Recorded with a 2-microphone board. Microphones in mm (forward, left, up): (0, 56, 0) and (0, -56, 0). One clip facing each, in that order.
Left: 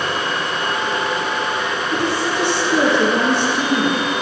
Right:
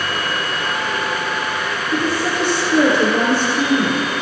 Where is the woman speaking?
30° left (ahead or behind), 5 m.